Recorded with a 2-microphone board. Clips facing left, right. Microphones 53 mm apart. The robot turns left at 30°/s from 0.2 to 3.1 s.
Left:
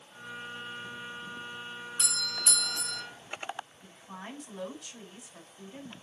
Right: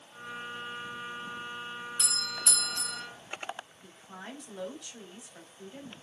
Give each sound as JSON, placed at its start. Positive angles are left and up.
{"t": 2.0, "sound": "a doorbell", "side_deg": 15, "distance_m": 1.1}
{"t": 3.8, "sound": "a woman speaking", "side_deg": 25, "distance_m": 3.5}